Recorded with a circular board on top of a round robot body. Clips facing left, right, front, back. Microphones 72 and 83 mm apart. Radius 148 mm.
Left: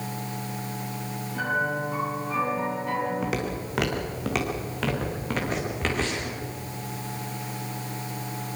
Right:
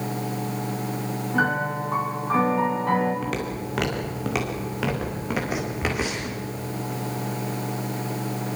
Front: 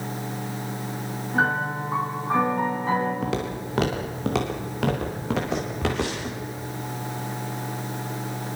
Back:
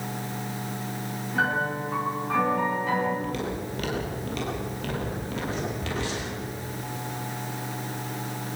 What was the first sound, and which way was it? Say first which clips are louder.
A piano: right 3 dB, front 2 dB; 60° right.